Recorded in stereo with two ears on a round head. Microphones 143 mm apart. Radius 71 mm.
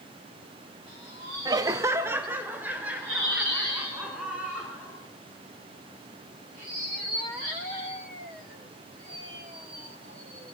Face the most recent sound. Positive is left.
turn(degrees=-5)  # may be behind; listen again after turning